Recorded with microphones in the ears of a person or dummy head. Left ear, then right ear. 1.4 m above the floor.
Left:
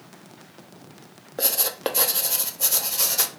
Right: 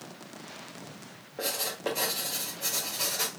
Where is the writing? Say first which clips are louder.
Left 6 dB; 80° left, 0.6 m.